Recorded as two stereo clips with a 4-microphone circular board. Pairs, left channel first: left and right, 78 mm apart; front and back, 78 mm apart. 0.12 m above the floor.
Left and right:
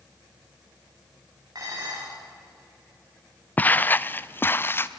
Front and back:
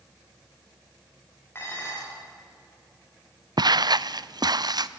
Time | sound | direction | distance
1.6 | dishes clattering | 60° right | 10 m
3.6 | footsteps | 160° left | 0.5 m